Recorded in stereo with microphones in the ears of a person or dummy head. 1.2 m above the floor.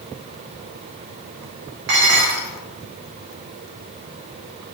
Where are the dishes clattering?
65° right (ahead or behind), 0.7 m.